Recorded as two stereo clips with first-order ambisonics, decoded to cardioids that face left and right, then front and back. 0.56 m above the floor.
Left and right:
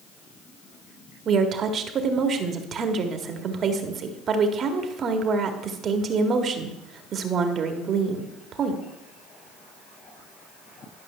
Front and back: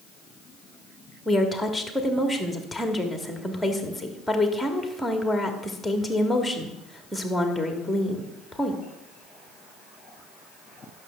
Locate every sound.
1.2 s a woman speaking: 90° right, 1.2 m